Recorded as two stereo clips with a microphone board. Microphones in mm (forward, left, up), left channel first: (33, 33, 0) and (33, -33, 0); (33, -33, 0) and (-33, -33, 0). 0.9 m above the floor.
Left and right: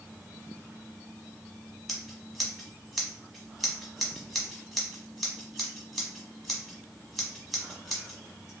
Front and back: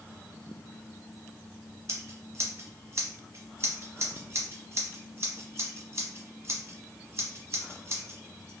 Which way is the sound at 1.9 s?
175° left.